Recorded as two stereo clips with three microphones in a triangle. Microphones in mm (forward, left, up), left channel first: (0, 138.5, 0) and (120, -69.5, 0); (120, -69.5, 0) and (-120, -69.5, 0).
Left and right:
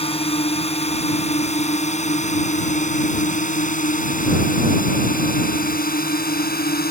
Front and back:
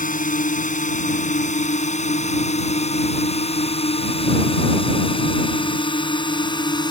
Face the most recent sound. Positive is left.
turn(degrees=70)